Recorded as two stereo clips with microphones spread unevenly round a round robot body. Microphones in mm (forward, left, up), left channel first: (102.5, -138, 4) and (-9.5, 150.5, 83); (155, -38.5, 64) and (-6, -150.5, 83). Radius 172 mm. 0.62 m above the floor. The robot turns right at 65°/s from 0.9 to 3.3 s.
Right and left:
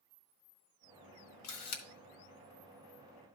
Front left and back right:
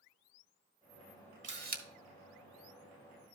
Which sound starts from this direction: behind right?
A camera shutter, at 1.4 s.